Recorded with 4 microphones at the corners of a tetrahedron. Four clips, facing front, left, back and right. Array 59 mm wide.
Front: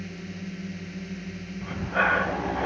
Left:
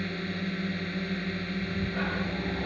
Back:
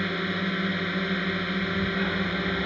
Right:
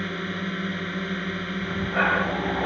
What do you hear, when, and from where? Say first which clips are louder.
0.0 s a drone: right 4 dB, back 10 dB; 155° right
1.6 s breathing: right 10 dB, front 2 dB; 45° right